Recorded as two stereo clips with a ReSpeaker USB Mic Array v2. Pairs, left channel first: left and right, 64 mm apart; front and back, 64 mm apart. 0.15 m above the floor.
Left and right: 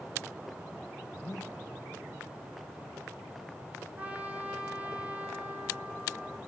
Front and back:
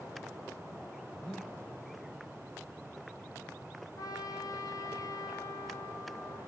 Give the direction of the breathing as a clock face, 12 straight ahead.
9 o'clock.